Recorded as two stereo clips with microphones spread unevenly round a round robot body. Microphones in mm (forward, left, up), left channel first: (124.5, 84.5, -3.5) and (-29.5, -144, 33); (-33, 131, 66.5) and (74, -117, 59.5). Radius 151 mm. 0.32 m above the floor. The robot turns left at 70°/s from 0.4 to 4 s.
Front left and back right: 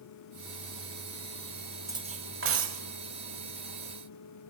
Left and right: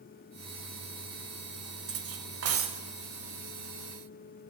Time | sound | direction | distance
1.9 | cutlery clinking | 40° right | 1.2 m